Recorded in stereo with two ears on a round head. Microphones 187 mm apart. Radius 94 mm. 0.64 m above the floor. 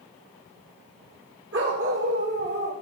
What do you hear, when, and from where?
1.5 s a dog barking: 65° right (ahead or behind), 8.5 m; by 2.7 s 75° right (ahead or behind), 7.5 m